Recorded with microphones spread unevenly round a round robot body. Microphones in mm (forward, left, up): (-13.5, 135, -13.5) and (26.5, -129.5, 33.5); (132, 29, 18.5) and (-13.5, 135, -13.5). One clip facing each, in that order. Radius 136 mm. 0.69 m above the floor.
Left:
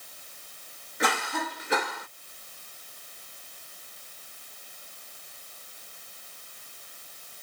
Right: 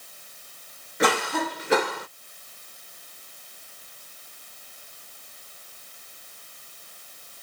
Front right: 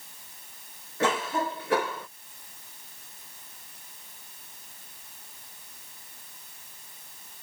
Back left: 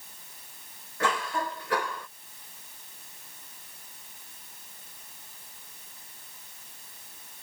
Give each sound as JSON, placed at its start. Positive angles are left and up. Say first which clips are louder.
{"t": 1.0, "sound": "a cough", "louder": "right 7 dB, front right 3 dB", "azimuth_deg": -115}